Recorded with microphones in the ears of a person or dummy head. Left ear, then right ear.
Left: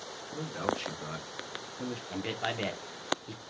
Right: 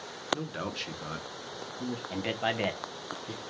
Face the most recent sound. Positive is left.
turn(degrees=-10)  # may be behind; listen again after turning